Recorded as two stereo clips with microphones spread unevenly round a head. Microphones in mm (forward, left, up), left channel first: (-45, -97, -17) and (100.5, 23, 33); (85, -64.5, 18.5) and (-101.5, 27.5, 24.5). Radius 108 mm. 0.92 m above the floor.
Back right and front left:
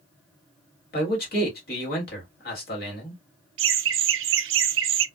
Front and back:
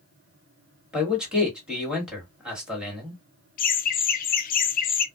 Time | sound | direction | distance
0.9 | a man speaking | 120° right | 1.6 m
3.6 | laughter | 20° left | 0.5 m